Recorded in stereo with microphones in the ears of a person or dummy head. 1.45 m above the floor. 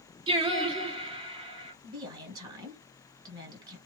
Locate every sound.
0.3 s singing: 25° right (ahead or behind), 1.2 m
1.8 s a woman speaking: 20° right (ahead or behind), 1.8 m